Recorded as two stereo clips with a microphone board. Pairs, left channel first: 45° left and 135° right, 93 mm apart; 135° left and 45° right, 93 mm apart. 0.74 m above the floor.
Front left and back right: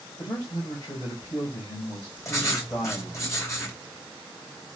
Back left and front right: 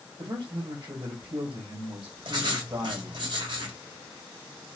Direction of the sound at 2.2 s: 10° right.